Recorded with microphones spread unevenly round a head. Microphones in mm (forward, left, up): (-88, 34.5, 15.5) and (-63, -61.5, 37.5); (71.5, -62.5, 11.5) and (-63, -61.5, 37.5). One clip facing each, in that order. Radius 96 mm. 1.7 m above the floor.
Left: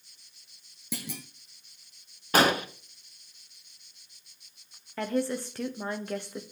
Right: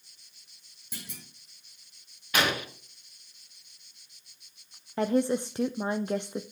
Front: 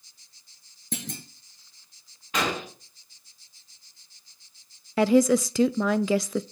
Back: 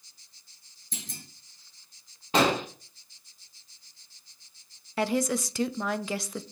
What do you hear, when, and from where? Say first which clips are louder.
0.9 s a clunk: left 8 dB, front 9 dB; 50° left, 0.8 m
2.3 s an explosion: left 5 dB, back 5 dB; 155° left, 1.2 m
5.0 s a woman speaking: right 4 dB, front 8 dB; straight ahead, 0.5 m